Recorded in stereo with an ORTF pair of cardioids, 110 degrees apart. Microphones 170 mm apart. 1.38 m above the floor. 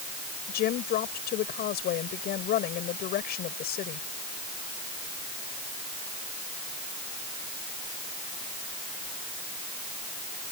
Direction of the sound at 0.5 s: 70° left.